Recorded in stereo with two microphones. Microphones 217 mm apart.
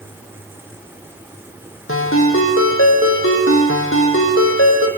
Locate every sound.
1.9 s a ringtone: 75° left (ahead or behind), 2.5 m